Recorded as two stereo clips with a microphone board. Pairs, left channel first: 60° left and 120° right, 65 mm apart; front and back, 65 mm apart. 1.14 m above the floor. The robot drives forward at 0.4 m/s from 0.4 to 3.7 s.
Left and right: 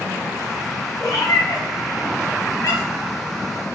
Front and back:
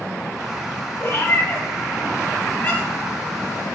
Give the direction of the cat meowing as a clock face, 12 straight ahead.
11 o'clock.